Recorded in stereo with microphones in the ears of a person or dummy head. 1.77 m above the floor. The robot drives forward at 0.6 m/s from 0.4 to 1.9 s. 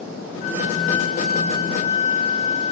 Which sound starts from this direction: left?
A flute, at 0.4 s.